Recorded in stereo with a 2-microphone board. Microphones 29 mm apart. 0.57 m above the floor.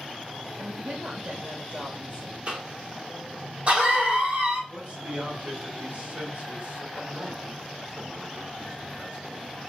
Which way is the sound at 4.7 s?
55° right (ahead or behind).